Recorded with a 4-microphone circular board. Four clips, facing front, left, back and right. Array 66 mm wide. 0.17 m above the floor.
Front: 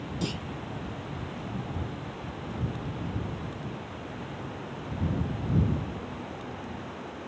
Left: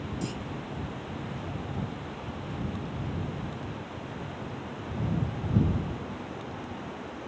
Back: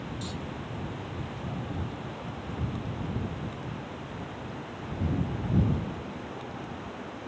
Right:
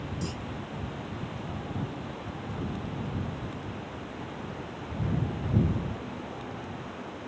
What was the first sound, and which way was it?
A clunk, 10° left.